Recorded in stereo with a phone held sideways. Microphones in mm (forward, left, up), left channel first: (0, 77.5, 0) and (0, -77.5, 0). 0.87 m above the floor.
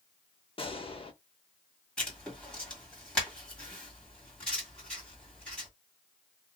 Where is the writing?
5° left (ahead or behind), 2.0 m.